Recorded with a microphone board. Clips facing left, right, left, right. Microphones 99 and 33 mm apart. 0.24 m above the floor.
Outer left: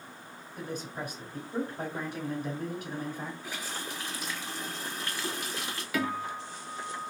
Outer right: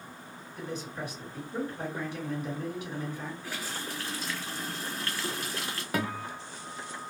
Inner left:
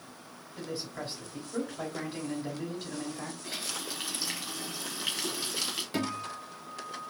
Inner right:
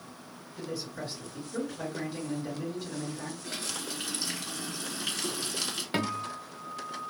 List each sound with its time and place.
0.6 s a man speaking: 45° left (ahead or behind), 2 m
3.4 s a running tap: 15° left (ahead or behind), 1.3 m
5.9 s a guitar: 40° right (ahead or behind), 0.8 m